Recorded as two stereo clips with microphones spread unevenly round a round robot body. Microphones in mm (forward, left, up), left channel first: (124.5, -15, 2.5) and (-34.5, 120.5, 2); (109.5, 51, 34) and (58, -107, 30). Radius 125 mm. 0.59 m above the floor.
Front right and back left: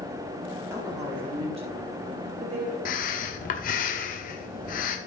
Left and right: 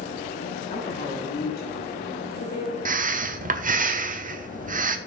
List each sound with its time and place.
0.7 s a woman speaking: 70° left, 1.3 m; by 2.8 s 90° left, 2 m
2.9 s breathing: 90° right, 0.8 m